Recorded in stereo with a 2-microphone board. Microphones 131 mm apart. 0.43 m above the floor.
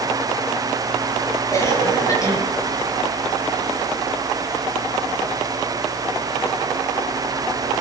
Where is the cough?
25° left (ahead or behind), 9 m.